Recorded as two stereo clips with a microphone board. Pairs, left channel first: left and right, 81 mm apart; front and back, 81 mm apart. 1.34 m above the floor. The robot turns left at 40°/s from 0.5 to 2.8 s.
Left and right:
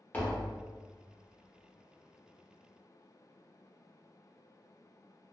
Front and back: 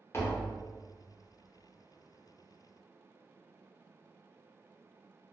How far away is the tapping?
About 0.7 m.